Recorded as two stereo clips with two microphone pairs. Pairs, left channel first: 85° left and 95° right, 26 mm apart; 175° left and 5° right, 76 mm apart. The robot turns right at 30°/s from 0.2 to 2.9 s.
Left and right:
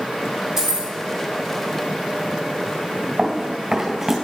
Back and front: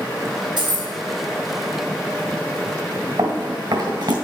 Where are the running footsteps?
30° right, 1.8 m.